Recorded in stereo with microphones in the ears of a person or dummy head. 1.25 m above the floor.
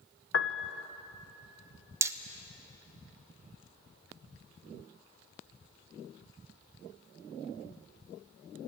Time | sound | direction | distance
0.3 | a piano | 65° left (ahead or behind) | 1.0 m
2.0 | hammering | 15° right (ahead or behind) | 0.8 m